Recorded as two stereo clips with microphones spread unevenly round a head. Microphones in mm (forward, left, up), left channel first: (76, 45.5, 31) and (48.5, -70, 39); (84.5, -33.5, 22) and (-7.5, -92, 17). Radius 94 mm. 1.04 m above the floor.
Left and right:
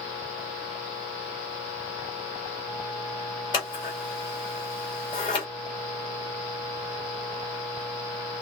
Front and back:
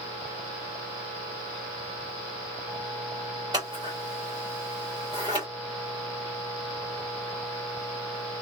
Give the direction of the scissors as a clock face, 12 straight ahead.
7 o'clock.